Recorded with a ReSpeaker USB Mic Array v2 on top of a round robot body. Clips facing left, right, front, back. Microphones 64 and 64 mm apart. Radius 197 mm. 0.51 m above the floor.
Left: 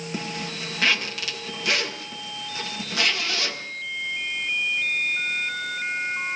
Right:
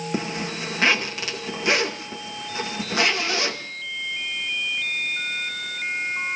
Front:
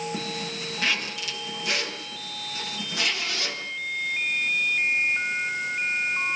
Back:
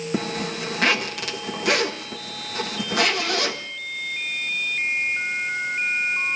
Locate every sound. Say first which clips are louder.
0.1 s a zipper: right 3 dB, back 6 dB; 155° right, 1.6 m